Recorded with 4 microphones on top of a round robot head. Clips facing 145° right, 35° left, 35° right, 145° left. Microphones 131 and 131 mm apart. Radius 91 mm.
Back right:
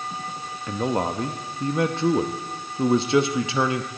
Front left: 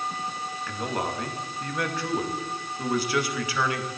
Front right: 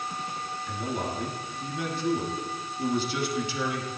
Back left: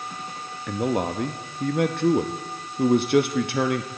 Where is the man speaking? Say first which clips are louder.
Back right 7 dB, back left 9 dB; 155° left, 0.8 m.